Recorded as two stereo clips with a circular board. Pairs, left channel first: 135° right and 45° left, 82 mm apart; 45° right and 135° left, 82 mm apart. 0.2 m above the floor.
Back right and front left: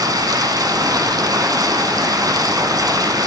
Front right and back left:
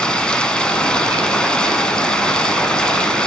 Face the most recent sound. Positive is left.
turn(degrees=30)